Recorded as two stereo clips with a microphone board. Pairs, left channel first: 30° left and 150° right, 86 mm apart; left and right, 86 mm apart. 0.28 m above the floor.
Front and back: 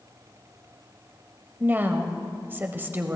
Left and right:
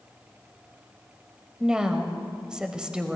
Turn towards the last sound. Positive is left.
turn(degrees=-155)